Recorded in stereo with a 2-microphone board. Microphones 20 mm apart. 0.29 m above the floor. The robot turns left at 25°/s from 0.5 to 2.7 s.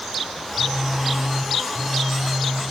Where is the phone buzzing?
80° right, 7 m; by 2.6 s 135° right, 7 m.